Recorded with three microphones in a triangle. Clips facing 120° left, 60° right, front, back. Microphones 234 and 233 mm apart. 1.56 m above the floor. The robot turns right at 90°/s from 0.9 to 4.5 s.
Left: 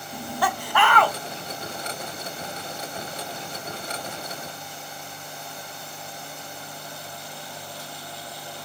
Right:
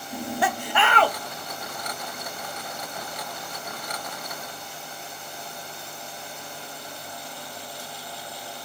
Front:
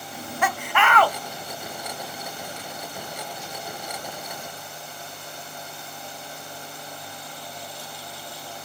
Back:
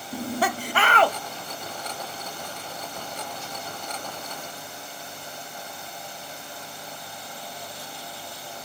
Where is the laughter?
125° right, 0.5 m; by 1.2 s 100° right, 0.5 m.